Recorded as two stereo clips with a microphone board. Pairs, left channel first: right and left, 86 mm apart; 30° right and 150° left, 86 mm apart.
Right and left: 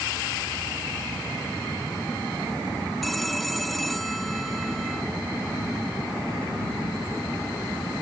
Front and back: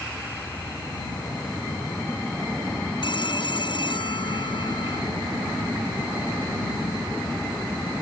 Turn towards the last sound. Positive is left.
turn(degrees=0)